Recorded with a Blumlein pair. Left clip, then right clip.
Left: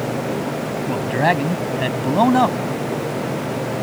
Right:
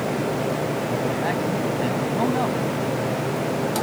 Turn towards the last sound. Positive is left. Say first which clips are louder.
# left 5 dB
turn(degrees=30)